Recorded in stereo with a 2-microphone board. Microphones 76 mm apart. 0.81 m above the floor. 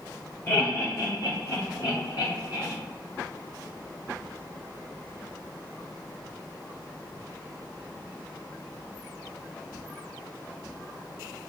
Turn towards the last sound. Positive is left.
turn(degrees=70)  # may be behind; listen again after turning